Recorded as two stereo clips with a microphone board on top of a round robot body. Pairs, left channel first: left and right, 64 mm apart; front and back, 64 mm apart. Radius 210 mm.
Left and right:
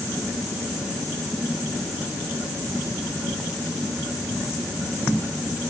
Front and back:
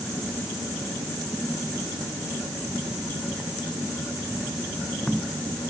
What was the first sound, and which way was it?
Only background noise.